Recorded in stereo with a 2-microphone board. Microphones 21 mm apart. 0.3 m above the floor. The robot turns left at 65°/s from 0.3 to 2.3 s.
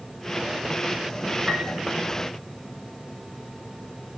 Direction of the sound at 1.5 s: 40° right (ahead or behind).